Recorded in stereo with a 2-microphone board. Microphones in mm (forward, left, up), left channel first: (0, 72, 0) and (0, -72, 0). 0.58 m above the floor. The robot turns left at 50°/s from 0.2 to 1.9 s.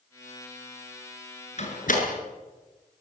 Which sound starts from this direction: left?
A door slam, at 1.6 s.